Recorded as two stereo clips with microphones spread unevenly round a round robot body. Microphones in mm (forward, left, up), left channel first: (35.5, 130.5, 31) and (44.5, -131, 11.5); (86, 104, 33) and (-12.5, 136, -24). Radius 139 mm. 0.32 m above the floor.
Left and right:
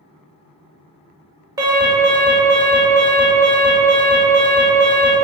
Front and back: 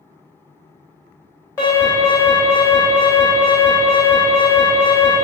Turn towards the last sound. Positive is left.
turn(degrees=-125)